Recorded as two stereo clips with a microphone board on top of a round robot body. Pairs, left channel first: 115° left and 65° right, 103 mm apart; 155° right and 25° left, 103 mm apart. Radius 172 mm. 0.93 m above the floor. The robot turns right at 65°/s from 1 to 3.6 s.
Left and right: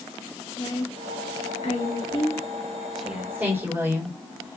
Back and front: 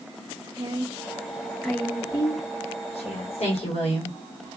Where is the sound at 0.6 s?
70° left, 2 m; by 3.5 s 130° right, 2 m.